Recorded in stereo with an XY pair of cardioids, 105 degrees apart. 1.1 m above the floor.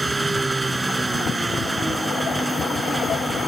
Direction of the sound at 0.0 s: 20° right.